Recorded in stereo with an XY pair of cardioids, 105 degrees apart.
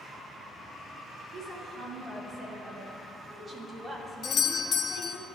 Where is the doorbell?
50° left, 0.9 m.